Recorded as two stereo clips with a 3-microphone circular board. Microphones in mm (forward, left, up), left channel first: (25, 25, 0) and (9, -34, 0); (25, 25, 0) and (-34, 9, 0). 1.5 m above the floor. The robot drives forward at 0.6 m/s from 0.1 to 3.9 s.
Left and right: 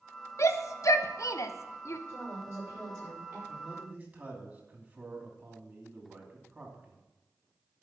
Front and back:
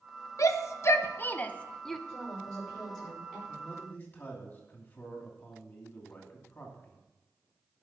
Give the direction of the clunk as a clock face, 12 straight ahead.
No clunk in this recording.